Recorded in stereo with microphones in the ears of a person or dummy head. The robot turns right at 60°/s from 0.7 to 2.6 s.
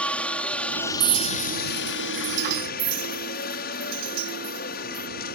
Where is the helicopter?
5° left; by 5.4 s 120° left.